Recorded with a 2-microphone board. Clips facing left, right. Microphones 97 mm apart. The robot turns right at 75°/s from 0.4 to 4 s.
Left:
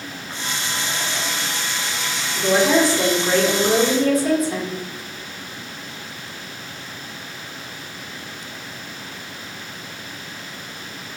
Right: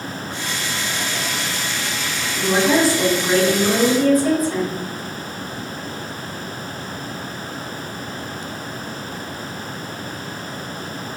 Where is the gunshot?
No gunshot in this recording.